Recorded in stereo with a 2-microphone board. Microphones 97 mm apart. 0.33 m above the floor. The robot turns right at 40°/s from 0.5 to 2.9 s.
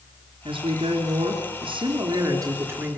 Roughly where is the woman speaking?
Right.